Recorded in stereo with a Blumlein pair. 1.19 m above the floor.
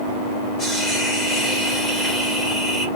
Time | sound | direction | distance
0.6 | a hiss | 5° right | 2 m